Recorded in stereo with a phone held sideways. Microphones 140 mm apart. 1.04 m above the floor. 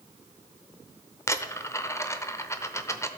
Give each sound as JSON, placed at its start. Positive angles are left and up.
{"t": 1.3, "sound": "a dropped coin", "side_deg": 20, "distance_m": 0.8}